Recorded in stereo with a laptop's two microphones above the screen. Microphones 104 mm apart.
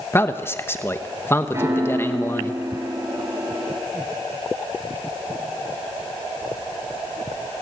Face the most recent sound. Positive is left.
turn(degrees=-25)  # may be behind; listen again after turning